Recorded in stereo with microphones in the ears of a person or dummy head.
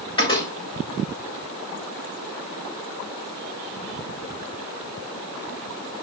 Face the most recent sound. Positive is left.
turn(degrees=25)  # may be behind; listen again after turning